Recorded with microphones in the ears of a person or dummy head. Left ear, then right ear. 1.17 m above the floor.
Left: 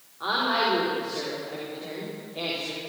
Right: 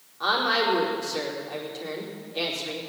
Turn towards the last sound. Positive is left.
turn(degrees=-80)